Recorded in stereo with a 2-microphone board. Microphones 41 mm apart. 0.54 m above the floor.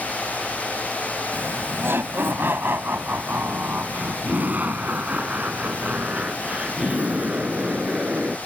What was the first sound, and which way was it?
Laughter, 70° right (ahead or behind).